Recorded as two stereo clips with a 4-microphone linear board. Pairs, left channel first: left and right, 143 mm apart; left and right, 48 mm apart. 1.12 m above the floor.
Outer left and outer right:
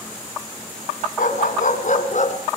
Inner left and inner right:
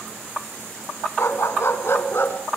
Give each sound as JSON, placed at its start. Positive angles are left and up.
{"t": 1.2, "sound": "a dog barking", "side_deg": 70, "distance_m": 2.5}